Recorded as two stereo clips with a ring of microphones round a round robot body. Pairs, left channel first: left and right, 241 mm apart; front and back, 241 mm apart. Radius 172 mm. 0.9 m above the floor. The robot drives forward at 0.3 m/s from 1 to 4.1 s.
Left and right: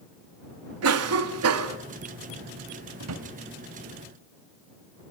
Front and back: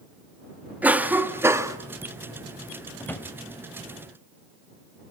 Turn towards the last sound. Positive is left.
turn(degrees=-90)